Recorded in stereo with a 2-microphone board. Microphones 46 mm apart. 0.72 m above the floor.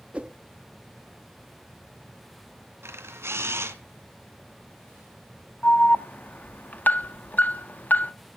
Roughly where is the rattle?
I don't hear a rattle.